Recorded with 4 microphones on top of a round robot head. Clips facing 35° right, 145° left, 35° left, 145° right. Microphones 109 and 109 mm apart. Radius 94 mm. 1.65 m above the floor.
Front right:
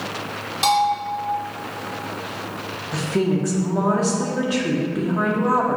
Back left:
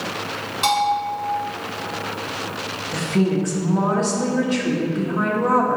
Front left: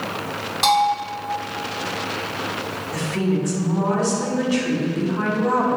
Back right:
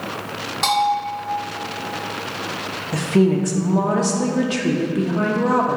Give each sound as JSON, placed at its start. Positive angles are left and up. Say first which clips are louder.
{"t": 0.6, "sound": "a bell", "louder": "front right 1 dB, front left 1 dB", "azimuth_deg": -50, "distance_m": 1.9}
{"t": 2.9, "sound": "a woman speaking", "louder": "back left 1 dB, back right 6 dB", "azimuth_deg": -120, "distance_m": 0.9}